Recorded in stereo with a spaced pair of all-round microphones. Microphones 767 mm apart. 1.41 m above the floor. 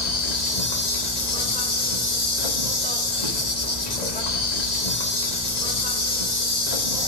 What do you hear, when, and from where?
0.0 s an insect: 60° left (ahead or behind), 2.5 m